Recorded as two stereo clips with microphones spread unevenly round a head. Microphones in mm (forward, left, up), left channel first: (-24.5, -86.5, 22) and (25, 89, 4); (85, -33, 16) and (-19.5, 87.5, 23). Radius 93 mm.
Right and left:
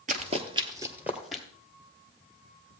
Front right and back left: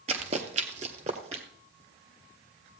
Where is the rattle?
I don't hear a rattle.